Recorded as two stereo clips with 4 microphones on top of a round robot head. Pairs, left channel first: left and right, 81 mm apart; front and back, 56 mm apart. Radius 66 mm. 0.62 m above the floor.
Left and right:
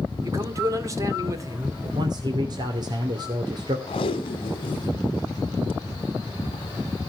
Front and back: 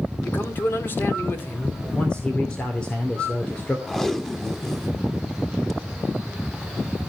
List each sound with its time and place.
0.2 s a man speaking: 45° right, 2.5 m
1.9 s a man speaking: 75° right, 2.5 m
3.9 s tape being pulled: 80° left, 1.3 m